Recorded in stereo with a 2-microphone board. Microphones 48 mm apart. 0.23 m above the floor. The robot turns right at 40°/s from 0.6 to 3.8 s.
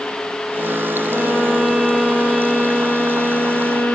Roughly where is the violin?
Ahead right.